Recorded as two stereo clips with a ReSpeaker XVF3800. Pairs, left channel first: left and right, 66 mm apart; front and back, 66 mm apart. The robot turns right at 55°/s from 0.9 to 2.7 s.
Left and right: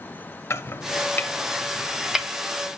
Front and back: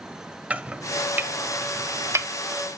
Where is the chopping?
120° left, 0.8 m; by 2.3 s 165° right, 0.8 m.